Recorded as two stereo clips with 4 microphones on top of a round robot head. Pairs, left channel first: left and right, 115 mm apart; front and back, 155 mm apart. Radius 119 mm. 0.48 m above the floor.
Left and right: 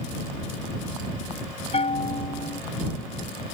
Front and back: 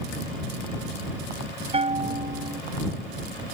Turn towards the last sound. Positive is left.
turn(degrees=125)